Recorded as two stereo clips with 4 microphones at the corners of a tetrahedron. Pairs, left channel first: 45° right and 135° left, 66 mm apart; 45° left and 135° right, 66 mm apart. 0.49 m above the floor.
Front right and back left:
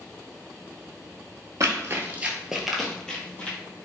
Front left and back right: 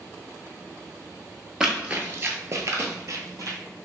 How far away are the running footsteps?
About 0.6 m.